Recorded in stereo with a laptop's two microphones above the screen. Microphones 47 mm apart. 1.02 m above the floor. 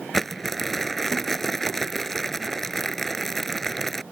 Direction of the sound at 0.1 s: 5° left (ahead or behind).